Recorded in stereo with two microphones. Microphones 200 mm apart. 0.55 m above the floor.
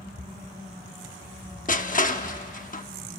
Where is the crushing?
40° left (ahead or behind), 0.9 m.